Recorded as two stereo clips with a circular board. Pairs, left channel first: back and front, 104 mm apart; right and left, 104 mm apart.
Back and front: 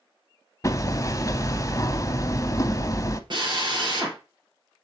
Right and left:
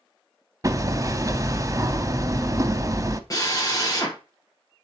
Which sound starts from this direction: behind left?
Hammering, at 0.6 s.